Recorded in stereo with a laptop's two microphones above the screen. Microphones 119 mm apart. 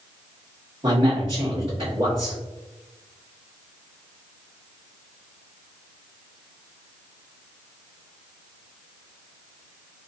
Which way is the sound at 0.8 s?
45° right (ahead or behind).